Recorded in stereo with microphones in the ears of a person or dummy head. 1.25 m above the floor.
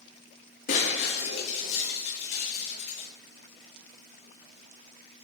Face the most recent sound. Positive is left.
turn(degrees=70)  # may be behind; listen again after turning